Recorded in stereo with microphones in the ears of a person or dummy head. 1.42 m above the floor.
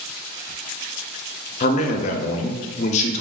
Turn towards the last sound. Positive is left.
turn(degrees=40)  # may be behind; listen again after turning